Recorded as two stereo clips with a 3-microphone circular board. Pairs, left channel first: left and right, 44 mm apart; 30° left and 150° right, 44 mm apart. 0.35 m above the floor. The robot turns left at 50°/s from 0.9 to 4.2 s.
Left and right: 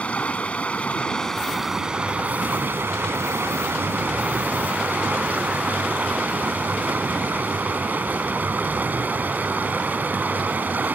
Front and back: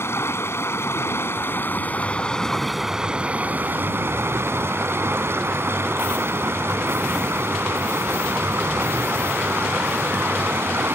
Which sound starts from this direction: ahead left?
Running water, at 0.0 s.